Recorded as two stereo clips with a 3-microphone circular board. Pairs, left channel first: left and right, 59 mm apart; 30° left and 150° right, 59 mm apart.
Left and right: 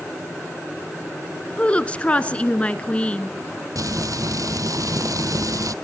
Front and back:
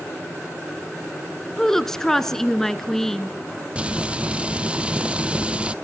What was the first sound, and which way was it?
A woman speaking, 95° left.